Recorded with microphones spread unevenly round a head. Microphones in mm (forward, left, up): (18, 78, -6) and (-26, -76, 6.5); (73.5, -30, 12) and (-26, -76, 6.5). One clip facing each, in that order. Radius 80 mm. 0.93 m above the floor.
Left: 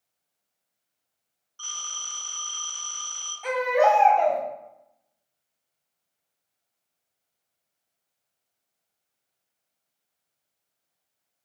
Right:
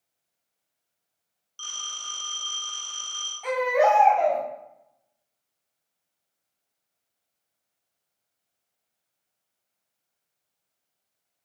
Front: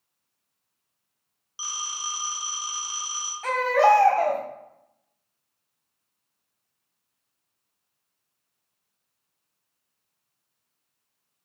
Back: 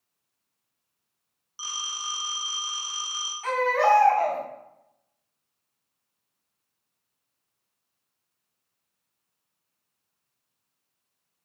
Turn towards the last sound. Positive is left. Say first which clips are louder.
# even, front 3 dB
turn(degrees=-15)